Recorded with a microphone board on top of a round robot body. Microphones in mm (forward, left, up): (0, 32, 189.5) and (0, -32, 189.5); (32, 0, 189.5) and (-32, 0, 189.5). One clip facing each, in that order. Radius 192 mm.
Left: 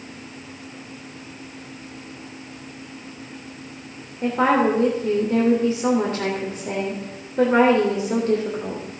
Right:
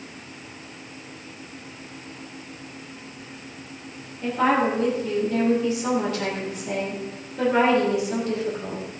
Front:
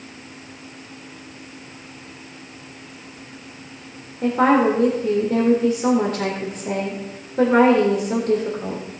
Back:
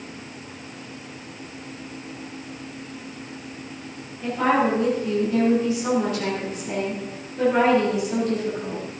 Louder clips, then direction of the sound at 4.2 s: Left 3 dB, front 5 dB; 40° left.